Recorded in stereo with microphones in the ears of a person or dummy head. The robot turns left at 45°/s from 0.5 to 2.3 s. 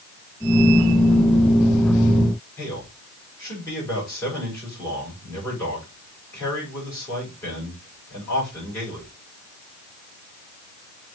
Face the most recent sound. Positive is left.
turn(degrees=20)  # may be behind; listen again after turning